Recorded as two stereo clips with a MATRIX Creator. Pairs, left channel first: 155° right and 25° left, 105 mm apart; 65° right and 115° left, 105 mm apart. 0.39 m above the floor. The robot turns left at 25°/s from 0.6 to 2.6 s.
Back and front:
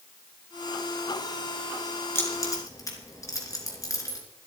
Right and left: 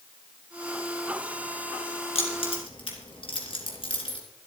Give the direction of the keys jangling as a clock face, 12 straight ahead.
3 o'clock.